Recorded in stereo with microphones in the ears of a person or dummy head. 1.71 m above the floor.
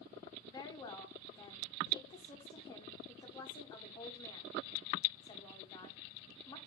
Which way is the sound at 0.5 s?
30° left (ahead or behind).